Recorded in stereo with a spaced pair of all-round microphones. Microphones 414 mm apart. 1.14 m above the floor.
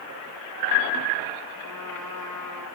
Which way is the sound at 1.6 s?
45° right (ahead or behind).